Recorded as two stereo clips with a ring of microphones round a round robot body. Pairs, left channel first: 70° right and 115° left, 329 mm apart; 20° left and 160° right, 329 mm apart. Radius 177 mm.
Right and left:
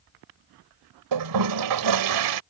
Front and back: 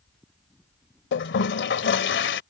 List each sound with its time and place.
1.1 s a toilet flushing: 80° left